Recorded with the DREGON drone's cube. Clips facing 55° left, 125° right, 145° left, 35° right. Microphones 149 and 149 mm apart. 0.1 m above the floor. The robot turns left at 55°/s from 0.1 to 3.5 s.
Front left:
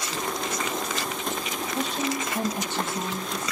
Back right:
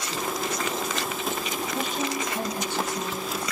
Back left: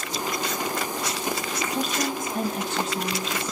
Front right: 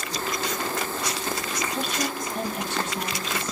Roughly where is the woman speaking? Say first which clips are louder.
Front left 2 dB, back left 3 dB; behind.